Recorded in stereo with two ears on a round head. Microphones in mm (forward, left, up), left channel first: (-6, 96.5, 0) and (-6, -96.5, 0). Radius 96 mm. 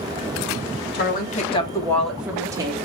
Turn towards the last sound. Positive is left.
turn(degrees=-20)  # may be behind; listen again after turning